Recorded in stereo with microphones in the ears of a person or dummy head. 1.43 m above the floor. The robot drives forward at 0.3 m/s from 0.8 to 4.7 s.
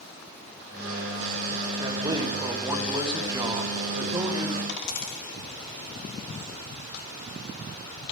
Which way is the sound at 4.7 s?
50° left (ahead or behind).